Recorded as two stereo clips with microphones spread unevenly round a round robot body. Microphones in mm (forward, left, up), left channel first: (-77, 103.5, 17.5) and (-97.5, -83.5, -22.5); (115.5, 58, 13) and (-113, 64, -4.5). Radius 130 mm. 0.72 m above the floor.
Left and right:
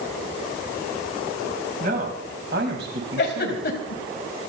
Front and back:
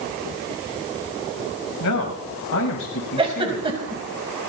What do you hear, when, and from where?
1.8 s a man speaking: 35° right, 5 m; by 3.9 s 60° right, 5 m
3.2 s a giggle: 110° left, 4.5 m